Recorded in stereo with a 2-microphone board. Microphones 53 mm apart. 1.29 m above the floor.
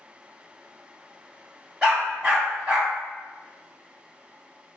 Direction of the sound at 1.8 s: 15° right (ahead or behind).